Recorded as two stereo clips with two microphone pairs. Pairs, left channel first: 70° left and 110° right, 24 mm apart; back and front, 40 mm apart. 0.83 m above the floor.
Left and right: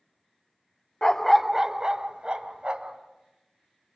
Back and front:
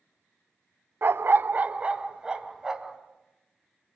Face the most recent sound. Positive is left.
turn(degrees=-75)